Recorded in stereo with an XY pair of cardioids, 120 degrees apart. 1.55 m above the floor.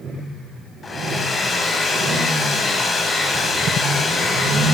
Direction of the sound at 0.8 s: 30° left.